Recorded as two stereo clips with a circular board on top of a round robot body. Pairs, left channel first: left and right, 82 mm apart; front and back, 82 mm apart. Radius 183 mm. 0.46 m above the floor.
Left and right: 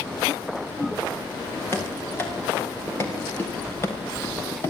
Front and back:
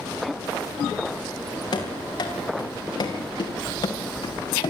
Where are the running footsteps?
30° left, 7.5 m.